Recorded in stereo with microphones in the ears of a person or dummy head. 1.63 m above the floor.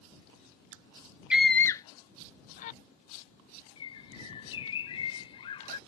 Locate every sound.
1.3 s a scream: 5° right (ahead or behind); by 2.8 s 45° left (ahead or behind)
3.8 s a bird: 30° left (ahead or behind)